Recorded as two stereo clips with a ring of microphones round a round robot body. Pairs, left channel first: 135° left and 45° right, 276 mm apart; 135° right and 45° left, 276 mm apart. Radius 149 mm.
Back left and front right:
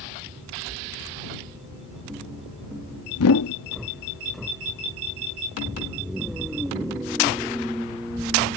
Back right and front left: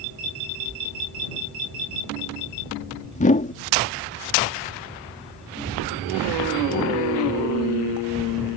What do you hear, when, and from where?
3.1 s a whoosh: 160° left